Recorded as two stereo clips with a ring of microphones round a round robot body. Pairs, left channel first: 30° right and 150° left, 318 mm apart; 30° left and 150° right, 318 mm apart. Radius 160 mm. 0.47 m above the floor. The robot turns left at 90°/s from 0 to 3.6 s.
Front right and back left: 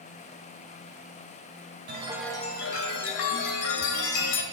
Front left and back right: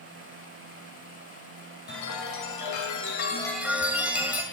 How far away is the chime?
About 2 m.